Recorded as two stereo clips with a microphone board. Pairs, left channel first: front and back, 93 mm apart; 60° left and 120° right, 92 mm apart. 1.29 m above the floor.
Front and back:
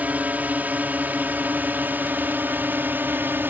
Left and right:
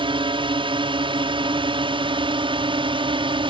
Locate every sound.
0.0 s a drone: 105° right; by 3.5 s 110° right